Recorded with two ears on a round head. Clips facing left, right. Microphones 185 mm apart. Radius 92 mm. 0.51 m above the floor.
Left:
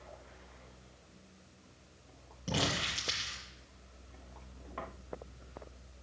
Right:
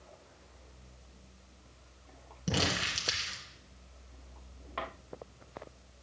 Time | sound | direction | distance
2.5 | crumpling | 30° right (ahead or behind) | 2.5 m